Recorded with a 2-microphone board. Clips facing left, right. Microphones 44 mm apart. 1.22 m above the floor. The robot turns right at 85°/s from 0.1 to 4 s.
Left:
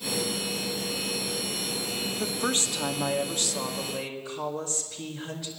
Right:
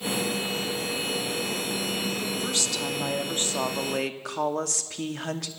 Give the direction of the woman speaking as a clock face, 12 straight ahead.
8 o'clock.